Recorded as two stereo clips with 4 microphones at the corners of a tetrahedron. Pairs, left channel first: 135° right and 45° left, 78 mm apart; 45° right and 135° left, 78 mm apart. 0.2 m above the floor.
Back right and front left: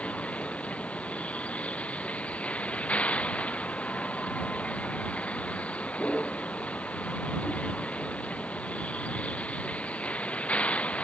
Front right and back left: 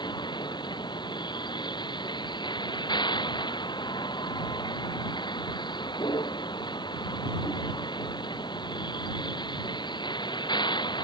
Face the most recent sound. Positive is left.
turn(degrees=-60)